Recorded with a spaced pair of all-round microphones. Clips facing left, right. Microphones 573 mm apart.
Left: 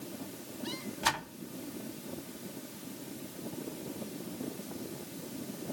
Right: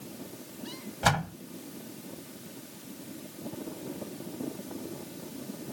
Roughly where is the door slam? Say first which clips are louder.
Right 8 dB; right.